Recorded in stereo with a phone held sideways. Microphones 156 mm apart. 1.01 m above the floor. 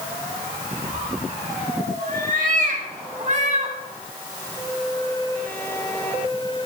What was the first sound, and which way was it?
A cat meowing, 75° right (ahead or behind).